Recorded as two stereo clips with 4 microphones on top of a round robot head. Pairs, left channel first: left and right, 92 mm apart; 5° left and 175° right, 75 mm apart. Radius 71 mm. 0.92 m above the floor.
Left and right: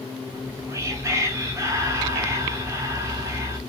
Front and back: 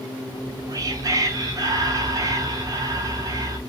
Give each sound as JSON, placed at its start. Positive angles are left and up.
{"t": 0.3, "sound": "whispering", "azimuth_deg": -145, "distance_m": 1.6}